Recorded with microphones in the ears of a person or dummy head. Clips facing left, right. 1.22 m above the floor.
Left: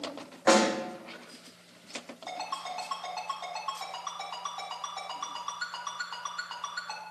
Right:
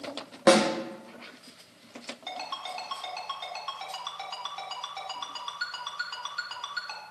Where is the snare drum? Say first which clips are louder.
Right 3 dB; 60° right (ahead or behind), 1.6 m.